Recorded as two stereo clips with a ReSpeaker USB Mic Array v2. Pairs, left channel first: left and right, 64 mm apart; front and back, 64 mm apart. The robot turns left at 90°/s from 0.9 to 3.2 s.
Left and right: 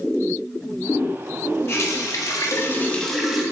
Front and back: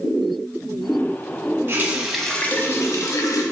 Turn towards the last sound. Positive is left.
turn(degrees=0)